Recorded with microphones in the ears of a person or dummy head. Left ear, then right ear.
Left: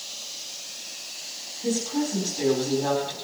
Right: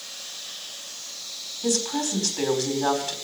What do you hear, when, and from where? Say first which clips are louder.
1.6 s a woman speaking: right 2 dB; 65° right (ahead or behind), 4.5 m